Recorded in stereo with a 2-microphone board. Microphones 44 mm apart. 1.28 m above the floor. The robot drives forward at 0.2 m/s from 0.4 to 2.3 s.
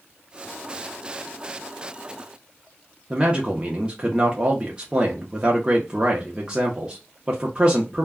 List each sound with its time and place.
3.1 s a man speaking: 20° right (ahead or behind), 0.6 m